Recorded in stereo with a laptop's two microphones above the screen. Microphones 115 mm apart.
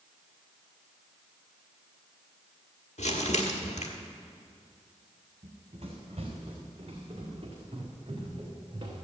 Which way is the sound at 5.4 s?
65° right (ahead or behind).